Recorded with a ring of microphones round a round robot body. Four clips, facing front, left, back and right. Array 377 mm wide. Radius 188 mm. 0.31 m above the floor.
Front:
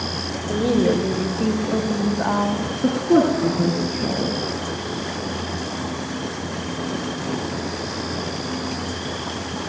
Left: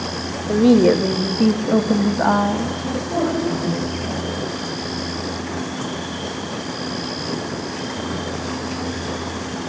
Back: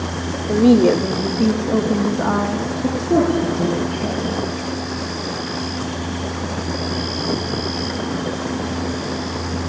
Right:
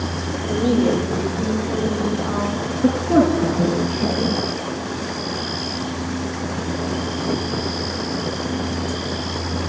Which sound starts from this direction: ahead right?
A woman speaking, at 2.8 s.